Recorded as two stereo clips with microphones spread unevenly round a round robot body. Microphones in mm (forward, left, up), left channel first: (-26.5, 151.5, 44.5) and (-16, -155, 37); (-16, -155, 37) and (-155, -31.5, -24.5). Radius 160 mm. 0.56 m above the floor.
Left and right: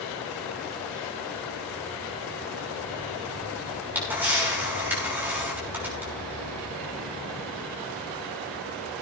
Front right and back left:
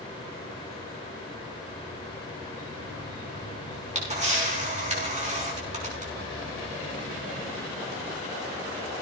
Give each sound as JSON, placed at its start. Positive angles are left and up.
{"t": 3.7, "sound": "a camera shutter", "azimuth_deg": -170, "distance_m": 6.0}